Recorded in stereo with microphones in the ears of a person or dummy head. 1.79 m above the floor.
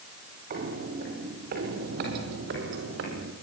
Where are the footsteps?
50° right (ahead or behind), 3.5 m; by 3.3 s 65° right (ahead or behind), 4.5 m.